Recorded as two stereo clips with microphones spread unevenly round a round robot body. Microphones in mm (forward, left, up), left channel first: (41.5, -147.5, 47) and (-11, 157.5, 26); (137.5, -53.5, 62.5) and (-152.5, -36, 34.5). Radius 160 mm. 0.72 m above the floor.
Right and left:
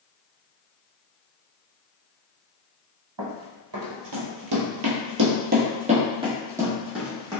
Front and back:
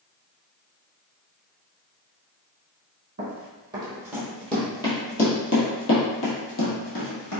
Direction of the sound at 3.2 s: 110° left.